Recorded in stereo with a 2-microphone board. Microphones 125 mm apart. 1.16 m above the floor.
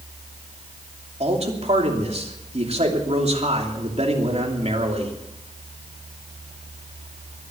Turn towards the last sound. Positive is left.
turn(degrees=-60)  # may be behind; listen again after turning